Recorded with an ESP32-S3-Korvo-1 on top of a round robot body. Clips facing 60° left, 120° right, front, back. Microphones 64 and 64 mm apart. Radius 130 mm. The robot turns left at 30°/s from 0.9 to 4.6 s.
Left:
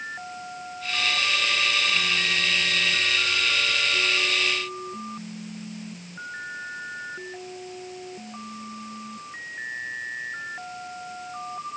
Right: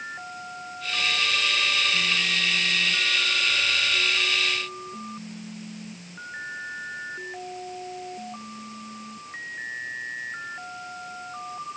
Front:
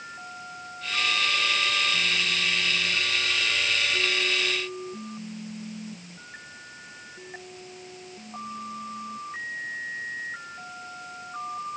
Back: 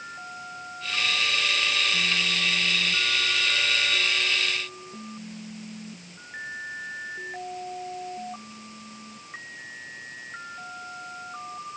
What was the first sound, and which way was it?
Only background noise.